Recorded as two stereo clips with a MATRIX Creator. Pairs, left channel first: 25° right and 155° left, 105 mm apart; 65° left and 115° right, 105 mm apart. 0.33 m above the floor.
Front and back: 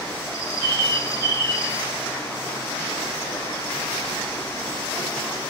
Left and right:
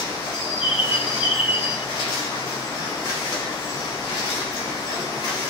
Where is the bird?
50° right, 1.7 m.